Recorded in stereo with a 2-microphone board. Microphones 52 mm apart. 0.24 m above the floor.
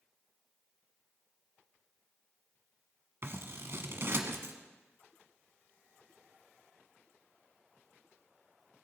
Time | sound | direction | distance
3.2 | scissors | 55° right (ahead or behind) | 0.9 m